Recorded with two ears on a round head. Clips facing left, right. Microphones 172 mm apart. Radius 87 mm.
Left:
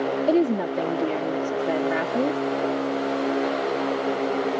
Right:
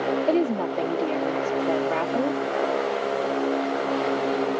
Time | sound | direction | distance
0.3 | a woman speaking | 15° left (ahead or behind) | ?